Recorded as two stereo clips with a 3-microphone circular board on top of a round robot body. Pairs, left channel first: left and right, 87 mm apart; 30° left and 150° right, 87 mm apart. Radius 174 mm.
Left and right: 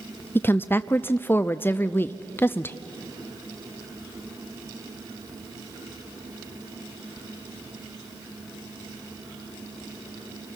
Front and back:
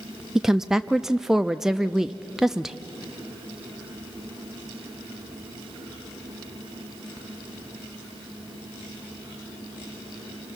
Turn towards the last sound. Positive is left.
turn(degrees=130)